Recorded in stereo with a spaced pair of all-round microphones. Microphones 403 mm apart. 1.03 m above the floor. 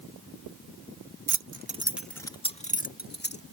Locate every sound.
1.3 s keys jangling: 55° right (ahead or behind); by 3.4 s 25° left (ahead or behind)